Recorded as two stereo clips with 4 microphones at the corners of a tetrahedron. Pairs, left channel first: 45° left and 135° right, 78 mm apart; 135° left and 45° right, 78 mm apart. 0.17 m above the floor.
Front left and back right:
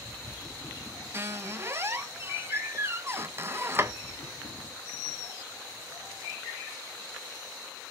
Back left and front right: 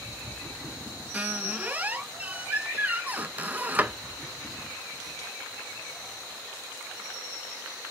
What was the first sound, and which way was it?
A squeak, 100° right.